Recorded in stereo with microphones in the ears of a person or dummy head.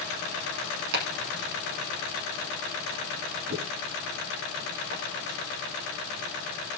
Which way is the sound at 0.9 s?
65° right (ahead or behind).